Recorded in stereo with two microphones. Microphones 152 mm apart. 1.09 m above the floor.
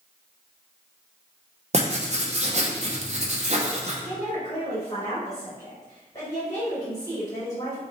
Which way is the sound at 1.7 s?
45° right (ahead or behind).